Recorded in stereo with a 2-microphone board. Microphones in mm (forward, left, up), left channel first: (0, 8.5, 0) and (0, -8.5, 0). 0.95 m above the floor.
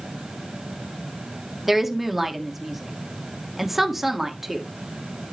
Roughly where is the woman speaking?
Centre.